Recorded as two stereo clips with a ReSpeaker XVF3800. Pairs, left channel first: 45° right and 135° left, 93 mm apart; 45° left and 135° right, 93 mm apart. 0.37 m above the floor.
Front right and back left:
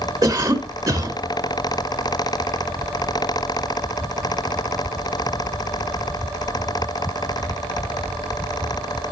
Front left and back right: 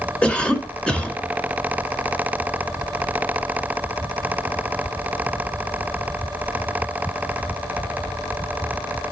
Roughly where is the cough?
Behind left.